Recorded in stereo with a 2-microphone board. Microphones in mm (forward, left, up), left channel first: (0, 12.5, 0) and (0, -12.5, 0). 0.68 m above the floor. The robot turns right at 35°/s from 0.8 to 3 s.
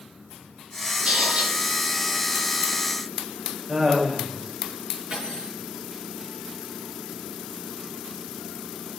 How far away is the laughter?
About 3.5 m.